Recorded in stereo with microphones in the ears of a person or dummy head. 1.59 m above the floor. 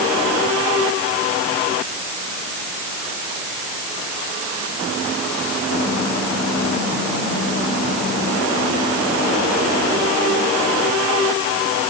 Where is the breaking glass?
No breaking glass in this recording.